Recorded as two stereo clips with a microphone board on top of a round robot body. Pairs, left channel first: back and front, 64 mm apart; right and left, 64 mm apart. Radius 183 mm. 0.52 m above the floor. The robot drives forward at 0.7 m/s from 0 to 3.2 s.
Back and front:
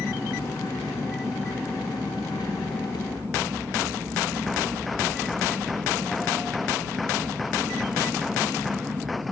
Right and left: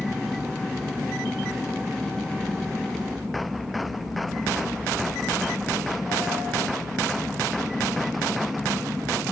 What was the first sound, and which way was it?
An aircraft, 35° left.